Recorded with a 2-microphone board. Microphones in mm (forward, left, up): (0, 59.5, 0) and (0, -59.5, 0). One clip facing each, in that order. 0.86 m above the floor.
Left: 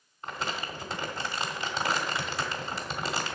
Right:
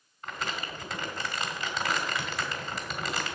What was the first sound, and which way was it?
Crumpling, 30° left (ahead or behind).